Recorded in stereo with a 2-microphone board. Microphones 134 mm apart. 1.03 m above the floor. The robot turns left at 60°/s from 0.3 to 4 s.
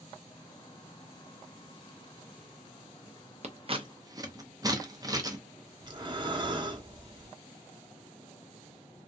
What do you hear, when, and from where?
3.4 s scissors: 55° right (ahead or behind), 0.5 m; by 5.4 s 25° right (ahead or behind), 0.5 m
5.8 s breathing: 35° right (ahead or behind), 0.6 m